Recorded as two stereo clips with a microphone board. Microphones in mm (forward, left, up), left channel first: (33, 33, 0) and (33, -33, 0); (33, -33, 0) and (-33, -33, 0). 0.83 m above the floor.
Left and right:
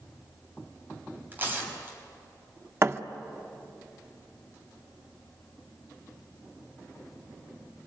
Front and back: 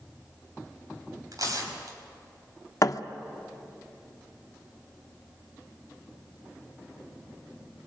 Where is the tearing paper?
155° right, 4.5 m.